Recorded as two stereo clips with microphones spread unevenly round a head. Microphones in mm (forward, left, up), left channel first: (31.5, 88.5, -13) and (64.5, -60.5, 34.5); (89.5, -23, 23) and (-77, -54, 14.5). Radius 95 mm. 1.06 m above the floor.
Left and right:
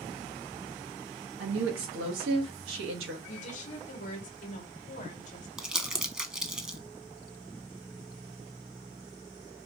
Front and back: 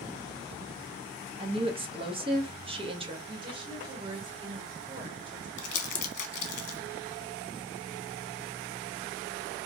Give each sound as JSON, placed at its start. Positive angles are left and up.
{"t": 1.4, "sound": "a woman speaking", "azimuth_deg": -110, "distance_m": 1.0}
{"t": 3.3, "sound": "a woman speaking", "azimuth_deg": 130, "distance_m": 1.0}
{"t": 5.6, "sound": "crumpling", "azimuth_deg": 25, "distance_m": 0.9}